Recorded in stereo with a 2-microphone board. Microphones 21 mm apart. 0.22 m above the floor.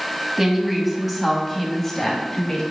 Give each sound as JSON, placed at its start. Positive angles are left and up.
{"t": 0.4, "sound": "a woman speaking", "side_deg": -15, "distance_m": 1.7}